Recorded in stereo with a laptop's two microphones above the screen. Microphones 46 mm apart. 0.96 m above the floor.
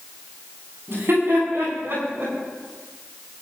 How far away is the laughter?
About 9 m.